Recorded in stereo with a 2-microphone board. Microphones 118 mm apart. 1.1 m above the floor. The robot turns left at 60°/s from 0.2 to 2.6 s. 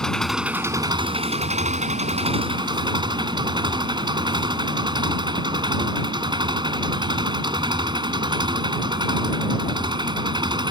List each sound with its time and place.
0.0 s an engine running: 5° left; by 10.7 s 140° right